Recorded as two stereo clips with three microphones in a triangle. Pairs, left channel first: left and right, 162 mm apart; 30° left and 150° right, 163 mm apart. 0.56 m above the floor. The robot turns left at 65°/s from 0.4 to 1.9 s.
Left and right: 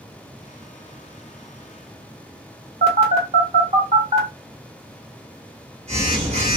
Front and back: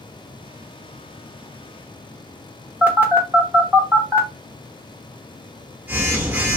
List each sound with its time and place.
2.8 s a phone buzzing: 75° right, 1.6 m